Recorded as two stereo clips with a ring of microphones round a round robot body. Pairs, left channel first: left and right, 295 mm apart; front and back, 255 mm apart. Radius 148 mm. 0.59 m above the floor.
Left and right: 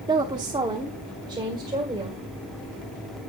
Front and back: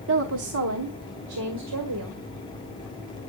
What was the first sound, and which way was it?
A woman speaking, 165° right.